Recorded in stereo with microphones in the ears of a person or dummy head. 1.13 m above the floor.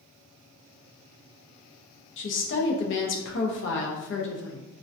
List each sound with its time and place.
2.2 s a woman speaking: 60° left (ahead or behind), 0.5 m